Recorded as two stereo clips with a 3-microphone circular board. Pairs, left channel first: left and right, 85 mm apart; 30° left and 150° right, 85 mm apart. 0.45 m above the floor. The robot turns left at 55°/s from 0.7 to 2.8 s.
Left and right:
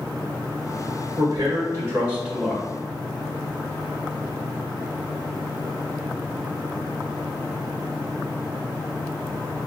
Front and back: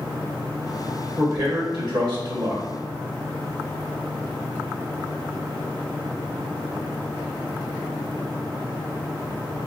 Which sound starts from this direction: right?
A man speaking, at 1.2 s.